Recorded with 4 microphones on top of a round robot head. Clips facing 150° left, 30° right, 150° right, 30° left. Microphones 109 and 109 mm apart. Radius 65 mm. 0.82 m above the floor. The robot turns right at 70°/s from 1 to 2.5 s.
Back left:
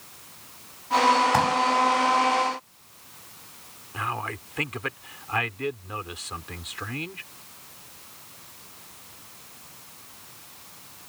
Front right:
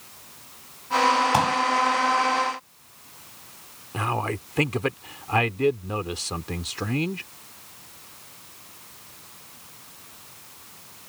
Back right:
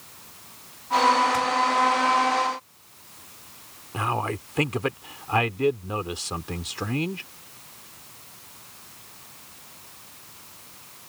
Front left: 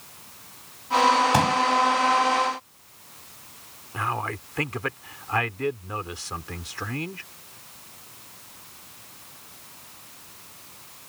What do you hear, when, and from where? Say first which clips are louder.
1.3 s a pop: even, front left 3 dB; 45° left; by 1.6 s 65° left
3.9 s a man speaking: front right 4 dB, back right 2 dB; 85° right